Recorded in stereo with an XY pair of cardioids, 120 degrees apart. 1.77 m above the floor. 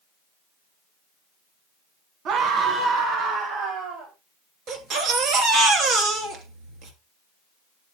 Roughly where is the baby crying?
Right.